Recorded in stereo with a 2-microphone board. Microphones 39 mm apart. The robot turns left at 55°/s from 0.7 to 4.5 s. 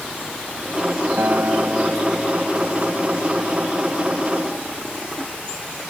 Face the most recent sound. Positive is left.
turn(degrees=75)